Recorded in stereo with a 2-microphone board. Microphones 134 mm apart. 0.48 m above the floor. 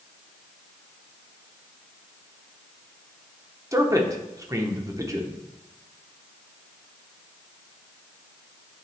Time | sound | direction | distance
3.7 | a man speaking | 25° right (ahead or behind) | 0.9 m